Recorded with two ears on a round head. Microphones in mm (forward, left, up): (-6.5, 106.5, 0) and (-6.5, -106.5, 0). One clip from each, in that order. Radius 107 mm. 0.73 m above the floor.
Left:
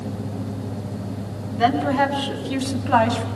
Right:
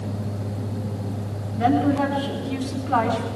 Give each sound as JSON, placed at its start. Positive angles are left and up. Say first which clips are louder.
{"t": 1.6, "sound": "a woman speaking", "louder": "left 2 dB", "side_deg": 55, "distance_m": 5.5}